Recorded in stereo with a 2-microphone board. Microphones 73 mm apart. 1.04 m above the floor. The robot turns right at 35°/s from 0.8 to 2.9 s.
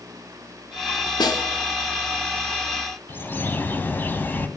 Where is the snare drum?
75° left (ahead or behind), 2.5 m; by 1.5 s 65° left (ahead or behind), 2.5 m.